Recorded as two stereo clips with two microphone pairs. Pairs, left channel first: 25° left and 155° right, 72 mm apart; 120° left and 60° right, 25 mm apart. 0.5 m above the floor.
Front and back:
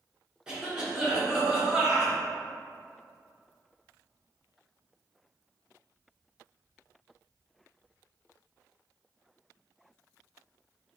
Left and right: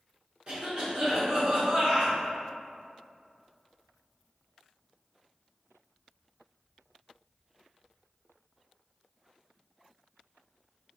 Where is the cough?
80° right, 0.9 m.